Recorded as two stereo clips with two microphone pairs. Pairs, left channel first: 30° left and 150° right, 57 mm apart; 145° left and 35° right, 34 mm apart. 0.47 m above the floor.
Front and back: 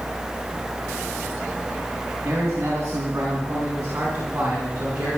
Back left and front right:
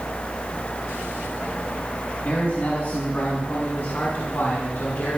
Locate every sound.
2.2 s a man speaking: 165° left, 4 m; by 5.2 s 145° left, 6 m